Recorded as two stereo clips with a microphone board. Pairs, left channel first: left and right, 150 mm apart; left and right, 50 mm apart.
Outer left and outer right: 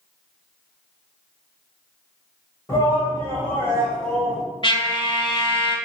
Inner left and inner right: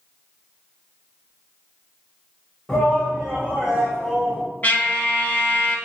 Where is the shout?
25° left (ahead or behind), 1.6 m; by 4.4 s centre (ahead or behind), 1.7 m.